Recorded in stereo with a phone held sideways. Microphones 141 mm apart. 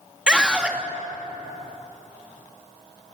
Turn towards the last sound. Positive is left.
turn(degrees=-5)  # may be behind; listen again after turning